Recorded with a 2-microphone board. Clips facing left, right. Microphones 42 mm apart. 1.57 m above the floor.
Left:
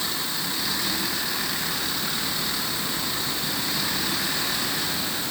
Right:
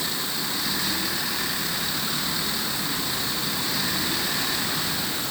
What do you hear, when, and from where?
Only background noise.